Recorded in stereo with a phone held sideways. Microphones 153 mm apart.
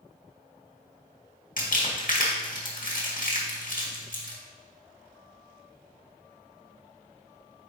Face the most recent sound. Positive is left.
turn(degrees=60)  # may be behind; listen again after turning